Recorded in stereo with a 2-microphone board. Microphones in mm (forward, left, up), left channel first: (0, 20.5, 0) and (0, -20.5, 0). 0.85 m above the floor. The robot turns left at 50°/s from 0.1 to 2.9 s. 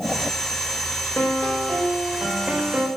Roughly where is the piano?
Ahead left.